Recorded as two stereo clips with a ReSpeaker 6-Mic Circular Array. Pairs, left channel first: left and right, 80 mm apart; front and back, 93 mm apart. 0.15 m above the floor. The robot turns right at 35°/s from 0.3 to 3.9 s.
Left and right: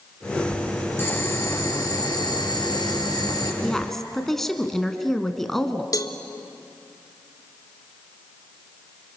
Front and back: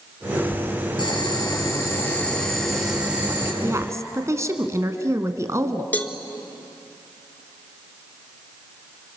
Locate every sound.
1.0 s boiling: 30° left, 4 m; by 3.5 s 120° left, 4 m
3.6 s a woman speaking: 165° left, 1.6 m; by 5.8 s 175° left, 1.6 m
5.9 s a cowbell: 70° left, 1.0 m